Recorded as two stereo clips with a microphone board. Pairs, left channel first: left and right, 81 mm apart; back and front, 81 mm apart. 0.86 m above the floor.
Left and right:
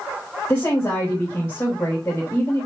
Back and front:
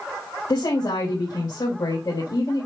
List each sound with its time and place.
0.5 s a woman speaking: 155° left, 4.5 m